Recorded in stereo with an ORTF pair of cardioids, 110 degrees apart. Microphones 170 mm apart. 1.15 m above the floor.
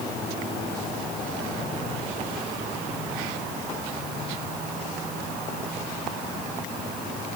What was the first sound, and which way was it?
Only background noise.